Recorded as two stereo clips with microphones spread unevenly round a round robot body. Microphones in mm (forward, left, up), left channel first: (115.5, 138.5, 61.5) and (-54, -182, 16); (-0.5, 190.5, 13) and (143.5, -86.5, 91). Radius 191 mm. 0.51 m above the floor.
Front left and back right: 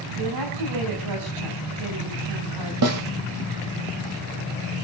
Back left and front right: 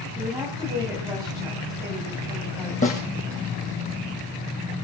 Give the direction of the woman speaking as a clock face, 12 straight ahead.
5 o'clock.